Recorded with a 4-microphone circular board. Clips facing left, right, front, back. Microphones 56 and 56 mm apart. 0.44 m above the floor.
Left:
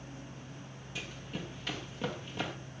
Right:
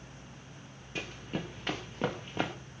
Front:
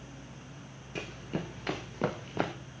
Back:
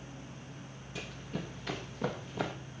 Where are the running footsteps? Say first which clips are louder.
Right 4 dB, front 4 dB; 40° right, 1.9 m; by 2.5 s 30° right, 3 m.